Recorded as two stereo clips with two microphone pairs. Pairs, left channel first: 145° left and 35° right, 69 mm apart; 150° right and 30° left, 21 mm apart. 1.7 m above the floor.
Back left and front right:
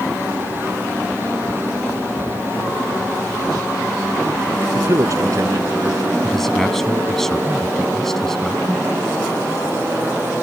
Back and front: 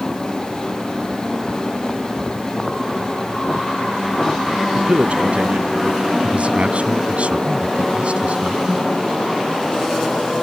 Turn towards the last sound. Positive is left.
turn(degrees=60)